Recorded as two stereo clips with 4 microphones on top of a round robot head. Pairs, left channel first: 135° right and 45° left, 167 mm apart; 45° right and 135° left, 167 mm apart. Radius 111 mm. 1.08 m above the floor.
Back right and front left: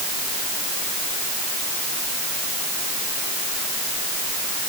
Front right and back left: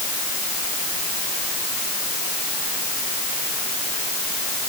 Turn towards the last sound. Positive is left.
No sound to turn to.